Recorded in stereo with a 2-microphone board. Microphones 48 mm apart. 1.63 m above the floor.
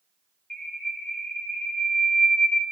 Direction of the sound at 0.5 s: 10° left (ahead or behind).